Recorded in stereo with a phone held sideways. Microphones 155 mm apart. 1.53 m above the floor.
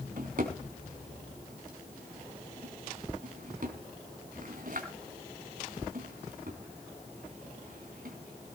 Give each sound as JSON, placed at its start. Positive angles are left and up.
{"t": 0.2, "sound": "a drawer", "side_deg": -65, "distance_m": 4.5}